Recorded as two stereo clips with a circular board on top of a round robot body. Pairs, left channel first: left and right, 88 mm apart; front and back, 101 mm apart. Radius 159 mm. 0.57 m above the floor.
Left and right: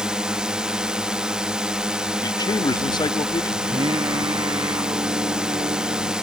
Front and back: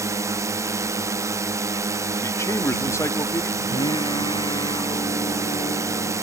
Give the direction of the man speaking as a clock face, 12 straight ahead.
10 o'clock.